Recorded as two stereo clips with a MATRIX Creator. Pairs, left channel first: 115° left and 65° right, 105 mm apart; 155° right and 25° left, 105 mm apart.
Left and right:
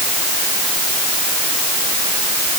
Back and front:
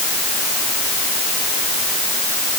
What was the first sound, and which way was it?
Only background noise.